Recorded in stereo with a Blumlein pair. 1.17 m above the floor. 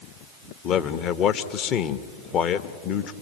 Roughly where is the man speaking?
Ahead left.